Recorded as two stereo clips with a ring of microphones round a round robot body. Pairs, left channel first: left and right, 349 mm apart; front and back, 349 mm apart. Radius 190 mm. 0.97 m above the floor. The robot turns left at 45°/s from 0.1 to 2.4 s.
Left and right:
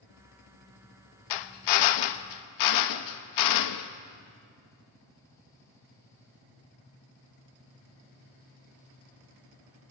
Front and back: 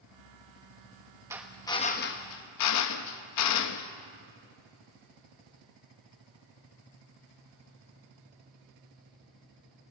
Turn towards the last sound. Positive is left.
turn(degrees=50)